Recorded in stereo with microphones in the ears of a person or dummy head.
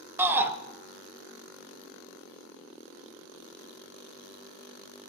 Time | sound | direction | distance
0.2 | a shout | 10° right (ahead or behind) | 0.6 m